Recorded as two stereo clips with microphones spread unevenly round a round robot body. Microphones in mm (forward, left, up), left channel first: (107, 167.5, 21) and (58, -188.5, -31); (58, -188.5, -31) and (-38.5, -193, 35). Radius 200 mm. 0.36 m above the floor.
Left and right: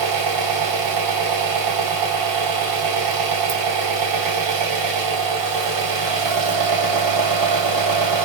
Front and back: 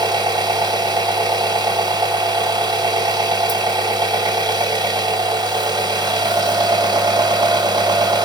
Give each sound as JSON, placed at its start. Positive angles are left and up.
{"t": 0.0, "sound": "an engine running", "azimuth_deg": -110, "distance_m": 2.0}